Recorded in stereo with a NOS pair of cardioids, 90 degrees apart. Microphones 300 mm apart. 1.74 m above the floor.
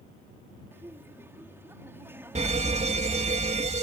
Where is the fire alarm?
20° right.